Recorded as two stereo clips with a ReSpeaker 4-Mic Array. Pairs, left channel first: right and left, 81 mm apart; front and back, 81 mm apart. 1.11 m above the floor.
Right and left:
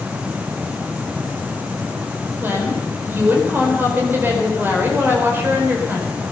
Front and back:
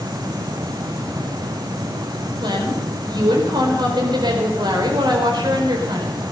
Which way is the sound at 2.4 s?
155° left.